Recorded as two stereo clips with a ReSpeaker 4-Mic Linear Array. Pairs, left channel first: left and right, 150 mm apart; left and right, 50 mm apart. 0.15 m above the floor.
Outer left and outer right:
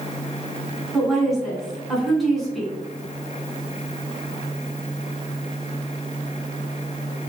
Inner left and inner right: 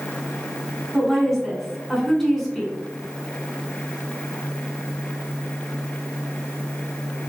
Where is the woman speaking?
Centre (ahead or behind), 1.6 m.